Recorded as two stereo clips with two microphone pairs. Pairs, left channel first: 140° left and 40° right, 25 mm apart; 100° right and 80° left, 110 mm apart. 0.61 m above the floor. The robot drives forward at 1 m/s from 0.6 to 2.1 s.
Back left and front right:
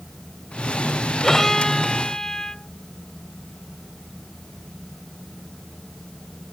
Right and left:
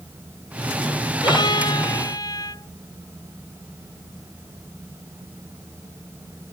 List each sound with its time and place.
1.2 s a violin: 145° right; by 2.7 s 155° right